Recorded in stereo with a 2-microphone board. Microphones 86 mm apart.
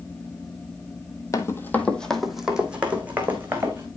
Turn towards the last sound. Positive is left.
turn(degrees=-25)  # may be behind; listen again after turning